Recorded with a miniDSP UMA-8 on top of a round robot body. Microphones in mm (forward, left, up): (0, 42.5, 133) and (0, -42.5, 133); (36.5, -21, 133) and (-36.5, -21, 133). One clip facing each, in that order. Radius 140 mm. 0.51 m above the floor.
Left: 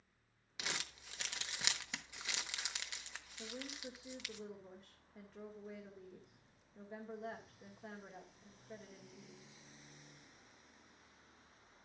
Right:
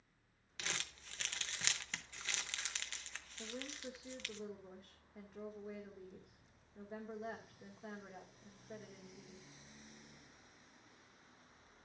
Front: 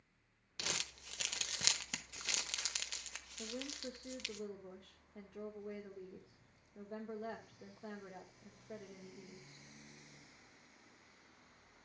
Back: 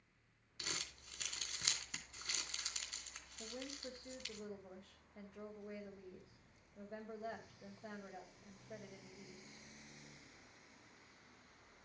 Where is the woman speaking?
5° right, 1.7 m.